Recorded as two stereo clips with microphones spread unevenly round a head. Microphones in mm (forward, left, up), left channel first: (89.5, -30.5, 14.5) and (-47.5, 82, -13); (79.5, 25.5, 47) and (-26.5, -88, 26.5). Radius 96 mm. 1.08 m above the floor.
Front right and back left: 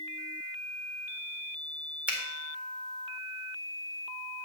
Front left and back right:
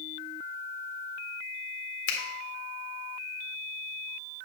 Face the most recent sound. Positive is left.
turn(degrees=60)